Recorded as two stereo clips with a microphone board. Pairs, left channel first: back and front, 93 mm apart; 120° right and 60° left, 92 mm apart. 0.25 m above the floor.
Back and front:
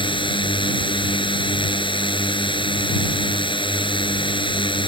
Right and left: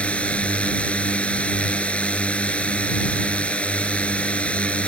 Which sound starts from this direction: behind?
A drone, at 0.0 s.